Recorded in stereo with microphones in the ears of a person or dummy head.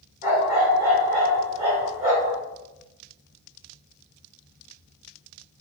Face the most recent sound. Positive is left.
turn(degrees=-30)  # may be behind; listen again after turning